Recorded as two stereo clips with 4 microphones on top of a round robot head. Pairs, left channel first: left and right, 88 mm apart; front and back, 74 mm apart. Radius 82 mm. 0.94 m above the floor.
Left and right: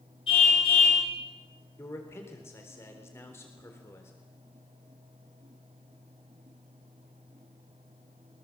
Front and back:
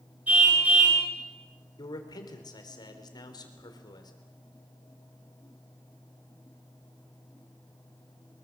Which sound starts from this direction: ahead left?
A man speaking, at 1.8 s.